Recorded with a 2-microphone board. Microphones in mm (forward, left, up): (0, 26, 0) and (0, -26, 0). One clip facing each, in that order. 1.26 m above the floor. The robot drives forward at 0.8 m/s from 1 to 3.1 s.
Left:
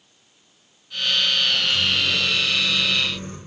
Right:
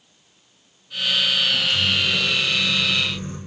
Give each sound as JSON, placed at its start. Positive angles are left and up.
{"t": 1.5, "sound": "a microwave", "side_deg": 30, "distance_m": 2.5}